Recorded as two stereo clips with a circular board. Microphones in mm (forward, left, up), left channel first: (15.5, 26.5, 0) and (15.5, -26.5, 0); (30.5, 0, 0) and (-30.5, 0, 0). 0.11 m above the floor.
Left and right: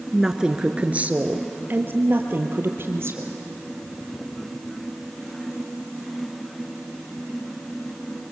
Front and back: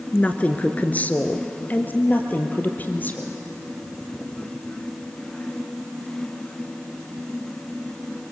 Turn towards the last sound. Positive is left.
turn(degrees=-60)